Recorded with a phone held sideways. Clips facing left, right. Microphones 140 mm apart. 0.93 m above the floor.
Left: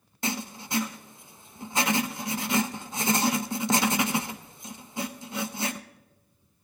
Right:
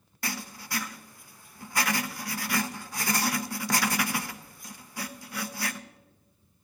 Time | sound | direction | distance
0.2 | writing | 25° left (ahead or behind) | 0.5 m